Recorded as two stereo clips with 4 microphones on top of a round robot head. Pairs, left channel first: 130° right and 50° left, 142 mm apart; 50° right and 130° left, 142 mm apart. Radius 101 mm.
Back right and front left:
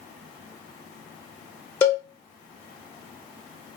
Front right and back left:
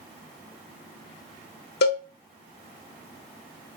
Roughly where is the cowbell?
Ahead right.